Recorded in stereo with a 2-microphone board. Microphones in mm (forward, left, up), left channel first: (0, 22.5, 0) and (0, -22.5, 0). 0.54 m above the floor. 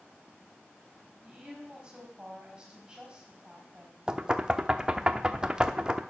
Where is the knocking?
20° right (ahead or behind), 0.7 m.